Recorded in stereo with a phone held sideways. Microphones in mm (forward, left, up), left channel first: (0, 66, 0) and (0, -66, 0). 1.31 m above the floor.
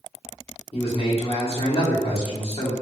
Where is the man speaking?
50° left (ahead or behind), 1.4 m.